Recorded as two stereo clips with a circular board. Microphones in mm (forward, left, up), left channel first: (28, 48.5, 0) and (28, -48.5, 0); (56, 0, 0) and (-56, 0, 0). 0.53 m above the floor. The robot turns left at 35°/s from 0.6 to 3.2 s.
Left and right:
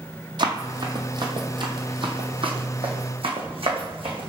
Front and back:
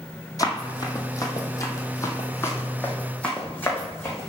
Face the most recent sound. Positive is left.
turn(degrees=-65)